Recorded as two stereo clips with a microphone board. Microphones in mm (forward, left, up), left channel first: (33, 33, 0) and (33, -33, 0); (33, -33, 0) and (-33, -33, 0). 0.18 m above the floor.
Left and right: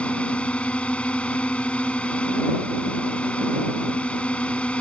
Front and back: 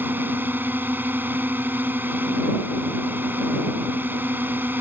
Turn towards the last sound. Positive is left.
turn(degrees=150)